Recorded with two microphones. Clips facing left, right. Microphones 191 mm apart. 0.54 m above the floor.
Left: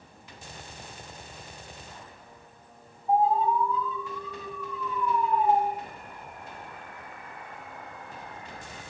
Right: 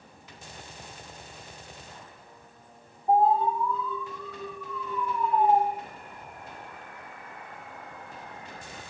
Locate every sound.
3.1 s an alarm: 70° right (ahead or behind), 4 m